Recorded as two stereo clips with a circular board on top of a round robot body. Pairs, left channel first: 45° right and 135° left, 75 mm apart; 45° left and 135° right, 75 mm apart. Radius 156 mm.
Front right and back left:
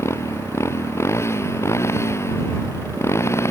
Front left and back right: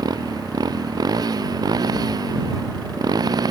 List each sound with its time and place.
0.0 s a motorcycle: 100° right